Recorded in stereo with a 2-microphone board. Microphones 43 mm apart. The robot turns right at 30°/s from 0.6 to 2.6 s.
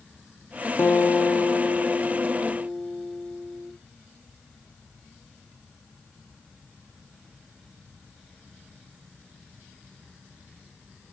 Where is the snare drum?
I don't hear a snare drum.